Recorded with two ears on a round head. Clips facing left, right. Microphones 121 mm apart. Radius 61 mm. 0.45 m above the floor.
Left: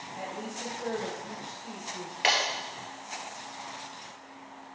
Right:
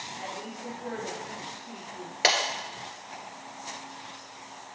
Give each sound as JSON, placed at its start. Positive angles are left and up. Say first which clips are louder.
{"t": 0.1, "sound": "a woman speaking", "louder": "left 2 dB", "side_deg": 60, "distance_m": 2.0}
{"t": 2.2, "sound": "breaking glass", "louder": "right 1 dB", "side_deg": -50, "distance_m": 1.4}